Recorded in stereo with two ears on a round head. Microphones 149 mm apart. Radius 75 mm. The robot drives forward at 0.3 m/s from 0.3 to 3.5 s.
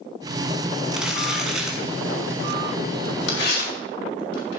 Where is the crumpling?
5° right (ahead or behind), 2.5 m.